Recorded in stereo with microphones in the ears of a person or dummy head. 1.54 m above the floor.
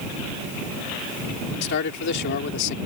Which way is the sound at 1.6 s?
60° left (ahead or behind).